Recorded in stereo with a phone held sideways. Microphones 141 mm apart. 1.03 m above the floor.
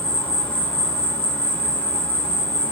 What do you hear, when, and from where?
0.0 s an insect: 10° left (ahead or behind), 0.9 m